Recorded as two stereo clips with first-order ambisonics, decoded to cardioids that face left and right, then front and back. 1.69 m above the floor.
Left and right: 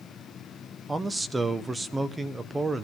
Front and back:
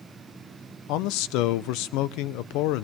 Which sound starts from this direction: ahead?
A man speaking, at 0.9 s.